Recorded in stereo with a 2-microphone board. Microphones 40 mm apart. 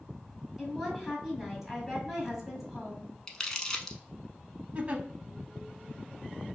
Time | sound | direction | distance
0.6 | a woman speaking | 5° right (ahead or behind) | 1.7 m
3.3 | crumpling | 15° left (ahead or behind) | 0.7 m
4.8 | a giggle | 35° right (ahead or behind) | 0.6 m